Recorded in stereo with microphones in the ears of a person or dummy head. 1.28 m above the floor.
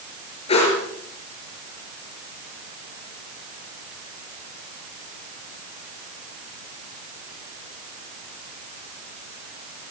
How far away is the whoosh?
About 7 m.